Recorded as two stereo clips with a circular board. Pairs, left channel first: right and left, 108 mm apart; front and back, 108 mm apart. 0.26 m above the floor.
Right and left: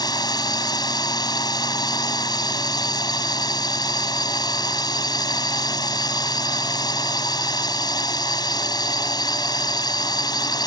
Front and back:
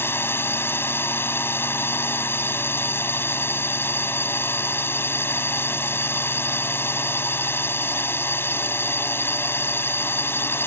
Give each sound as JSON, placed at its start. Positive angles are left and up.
{"t": 0.0, "sound": "a drone", "azimuth_deg": -60}